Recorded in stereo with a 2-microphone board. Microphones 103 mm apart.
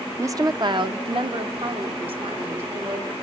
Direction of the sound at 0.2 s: 25° right (ahead or behind).